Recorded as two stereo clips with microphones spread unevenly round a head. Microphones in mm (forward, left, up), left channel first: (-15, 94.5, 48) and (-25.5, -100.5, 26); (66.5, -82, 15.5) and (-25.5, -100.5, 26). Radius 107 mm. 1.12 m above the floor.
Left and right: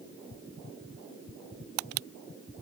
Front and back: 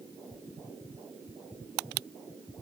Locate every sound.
Only background noise.